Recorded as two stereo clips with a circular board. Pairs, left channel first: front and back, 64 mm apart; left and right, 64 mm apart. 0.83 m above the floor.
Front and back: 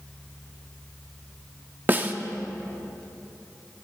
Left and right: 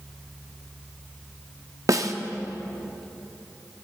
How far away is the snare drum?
About 0.6 m.